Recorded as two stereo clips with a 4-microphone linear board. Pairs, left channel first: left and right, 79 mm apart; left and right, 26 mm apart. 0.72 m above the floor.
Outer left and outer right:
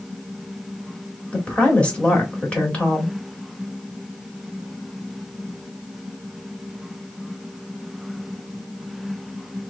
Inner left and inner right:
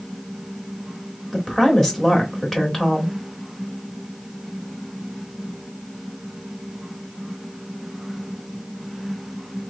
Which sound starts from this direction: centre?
A woman speaking, at 1.3 s.